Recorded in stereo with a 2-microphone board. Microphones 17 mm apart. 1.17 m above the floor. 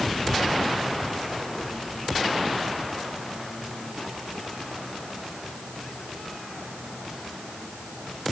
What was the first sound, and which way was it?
Only background noise.